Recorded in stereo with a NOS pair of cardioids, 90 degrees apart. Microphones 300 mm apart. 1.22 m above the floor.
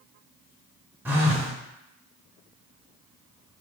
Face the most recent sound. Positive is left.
turn(degrees=-5)